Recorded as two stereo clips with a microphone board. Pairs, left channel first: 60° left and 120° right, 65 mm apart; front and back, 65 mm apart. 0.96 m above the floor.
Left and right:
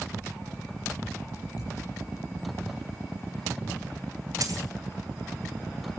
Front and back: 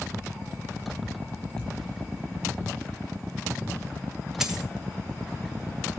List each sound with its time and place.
1.6 s a thud: 75° left, 10 m
4.4 s a dropped coin: 95° right, 2 m